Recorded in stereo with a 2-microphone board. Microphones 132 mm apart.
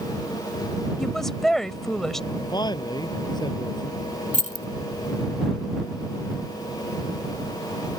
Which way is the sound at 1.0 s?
5° left (ahead or behind).